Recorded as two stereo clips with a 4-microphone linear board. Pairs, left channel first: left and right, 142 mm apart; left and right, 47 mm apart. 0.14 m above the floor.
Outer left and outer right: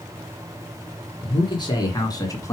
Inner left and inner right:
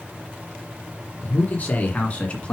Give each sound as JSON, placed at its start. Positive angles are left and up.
{"t": 1.2, "sound": "a man speaking", "side_deg": 35, "distance_m": 1.9}